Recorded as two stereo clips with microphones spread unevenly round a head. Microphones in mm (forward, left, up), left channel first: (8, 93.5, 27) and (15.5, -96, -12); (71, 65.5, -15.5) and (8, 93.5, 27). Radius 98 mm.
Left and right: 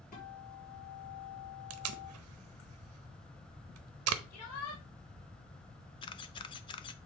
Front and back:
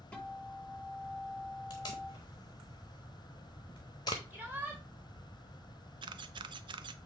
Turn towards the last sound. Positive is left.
turn(degrees=160)